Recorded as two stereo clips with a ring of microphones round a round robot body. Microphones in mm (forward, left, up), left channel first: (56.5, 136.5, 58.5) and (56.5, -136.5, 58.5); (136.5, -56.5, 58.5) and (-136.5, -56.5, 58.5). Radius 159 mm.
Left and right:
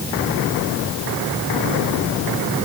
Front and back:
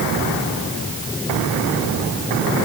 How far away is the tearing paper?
I don't hear tearing paper.